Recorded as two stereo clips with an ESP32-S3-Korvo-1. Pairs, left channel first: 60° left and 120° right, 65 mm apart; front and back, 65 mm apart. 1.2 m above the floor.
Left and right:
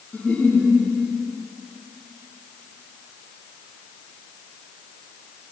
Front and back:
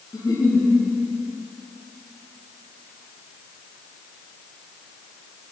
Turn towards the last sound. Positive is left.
turn(degrees=-10)